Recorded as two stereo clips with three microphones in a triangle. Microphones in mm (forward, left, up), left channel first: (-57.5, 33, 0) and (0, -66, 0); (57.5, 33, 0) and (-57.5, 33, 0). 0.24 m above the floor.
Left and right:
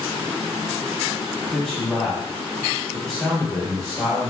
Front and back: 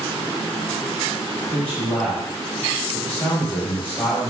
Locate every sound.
1.5 s a man speaking: 35° left, 1.0 m